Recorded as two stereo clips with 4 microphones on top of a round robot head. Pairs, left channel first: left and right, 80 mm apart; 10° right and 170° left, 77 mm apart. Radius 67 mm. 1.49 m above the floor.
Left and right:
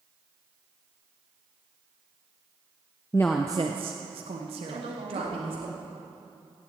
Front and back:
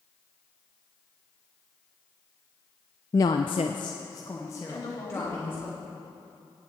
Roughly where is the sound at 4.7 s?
Ahead right.